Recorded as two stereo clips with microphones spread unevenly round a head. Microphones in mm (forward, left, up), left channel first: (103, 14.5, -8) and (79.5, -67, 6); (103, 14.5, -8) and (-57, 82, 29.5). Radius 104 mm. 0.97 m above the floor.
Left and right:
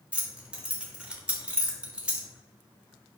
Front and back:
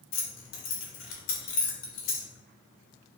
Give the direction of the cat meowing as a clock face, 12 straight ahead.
No cat meowing in this recording.